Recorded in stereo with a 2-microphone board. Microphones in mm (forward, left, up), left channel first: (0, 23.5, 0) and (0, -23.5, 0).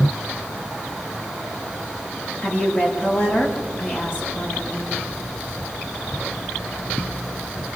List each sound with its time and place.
2.4 s a woman speaking: 45° left (ahead or behind), 6.5 m